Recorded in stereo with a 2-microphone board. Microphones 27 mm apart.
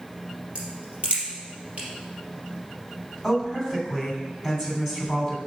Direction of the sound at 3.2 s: 10° right (ahead or behind).